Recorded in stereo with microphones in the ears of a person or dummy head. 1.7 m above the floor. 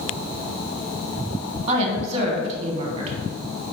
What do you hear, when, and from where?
1.7 s a woman speaking: 20° right (ahead or behind), 1.3 m